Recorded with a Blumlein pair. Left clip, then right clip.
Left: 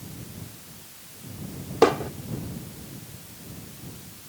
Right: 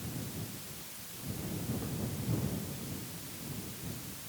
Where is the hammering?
45° left.